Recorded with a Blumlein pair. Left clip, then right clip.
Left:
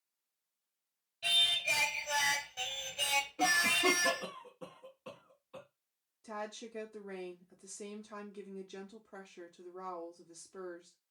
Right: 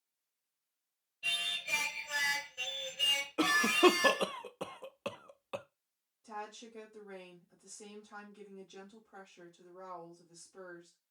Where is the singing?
50° left, 1.4 m.